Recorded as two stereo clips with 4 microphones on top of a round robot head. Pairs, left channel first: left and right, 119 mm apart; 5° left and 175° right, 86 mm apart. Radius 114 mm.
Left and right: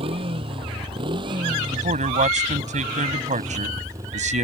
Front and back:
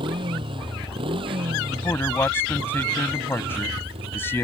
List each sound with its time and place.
0.0 s a motorcycle: 140° right; by 4.4 s 160° right
1.7 s a man speaking: 70° right